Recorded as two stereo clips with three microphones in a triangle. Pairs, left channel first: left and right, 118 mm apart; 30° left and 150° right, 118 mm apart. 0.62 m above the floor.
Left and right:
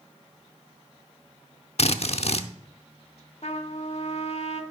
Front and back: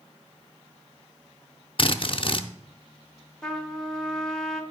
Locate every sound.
1.8 s a drill: 70° left, 0.5 m
3.4 s a trumpet: 115° left, 1.1 m